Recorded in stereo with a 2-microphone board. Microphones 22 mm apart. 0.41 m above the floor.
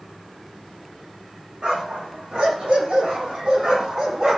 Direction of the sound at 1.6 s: 55° right (ahead or behind).